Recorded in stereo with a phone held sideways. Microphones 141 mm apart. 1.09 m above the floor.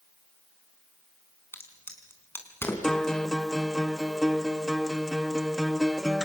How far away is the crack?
About 4 m.